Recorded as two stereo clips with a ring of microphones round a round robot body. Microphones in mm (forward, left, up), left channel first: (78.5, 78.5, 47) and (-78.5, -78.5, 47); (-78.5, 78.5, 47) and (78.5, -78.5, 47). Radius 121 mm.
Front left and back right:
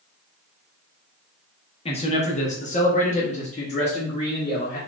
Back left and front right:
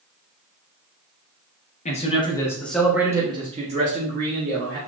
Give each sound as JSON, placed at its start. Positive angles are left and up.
{"t": 1.9, "sound": "a man speaking", "azimuth_deg": 95, "distance_m": 1.0}